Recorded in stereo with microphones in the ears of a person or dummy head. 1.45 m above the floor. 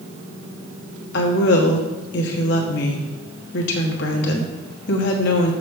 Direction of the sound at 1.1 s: 65° left (ahead or behind).